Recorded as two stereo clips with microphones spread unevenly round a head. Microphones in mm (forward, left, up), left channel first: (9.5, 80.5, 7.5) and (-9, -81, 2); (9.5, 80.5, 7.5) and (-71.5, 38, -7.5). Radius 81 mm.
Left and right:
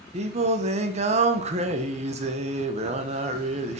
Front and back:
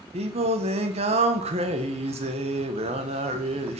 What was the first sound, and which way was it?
Singing, 150° right.